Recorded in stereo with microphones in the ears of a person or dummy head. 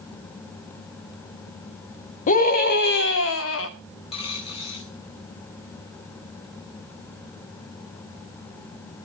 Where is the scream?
35° left (ahead or behind), 1.8 m; by 3.7 s 80° left, 1.3 m.